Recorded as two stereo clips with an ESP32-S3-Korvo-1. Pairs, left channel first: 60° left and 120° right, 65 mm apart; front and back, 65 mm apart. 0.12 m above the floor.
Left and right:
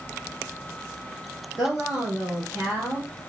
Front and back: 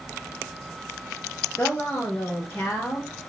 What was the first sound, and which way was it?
A woman speaking, 50° right.